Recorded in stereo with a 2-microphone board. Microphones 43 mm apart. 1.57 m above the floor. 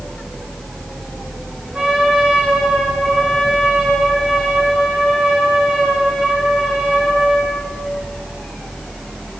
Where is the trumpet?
25° right (ahead or behind), 7 m.